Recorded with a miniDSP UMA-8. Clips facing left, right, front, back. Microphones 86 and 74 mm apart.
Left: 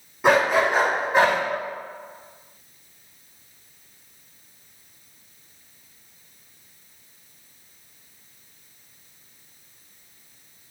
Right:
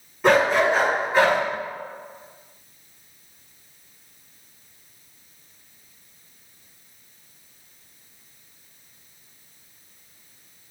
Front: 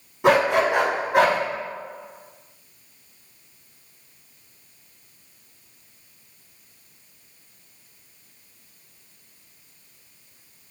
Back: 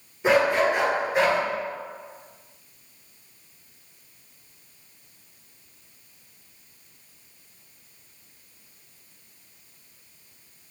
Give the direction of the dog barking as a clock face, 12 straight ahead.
12 o'clock.